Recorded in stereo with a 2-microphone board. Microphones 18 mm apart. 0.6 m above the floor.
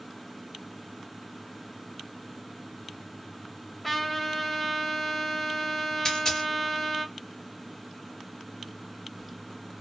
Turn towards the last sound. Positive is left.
turn(degrees=40)  # may be behind; listen again after turning